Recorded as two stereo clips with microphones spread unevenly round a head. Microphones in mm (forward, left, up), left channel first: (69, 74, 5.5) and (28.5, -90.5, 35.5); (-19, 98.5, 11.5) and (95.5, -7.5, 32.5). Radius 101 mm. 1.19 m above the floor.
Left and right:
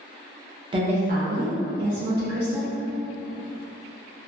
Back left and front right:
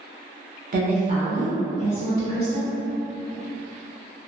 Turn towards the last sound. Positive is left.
turn(degrees=-130)